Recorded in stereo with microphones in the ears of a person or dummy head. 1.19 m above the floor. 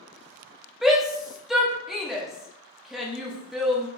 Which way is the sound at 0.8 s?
5° right (ahead or behind).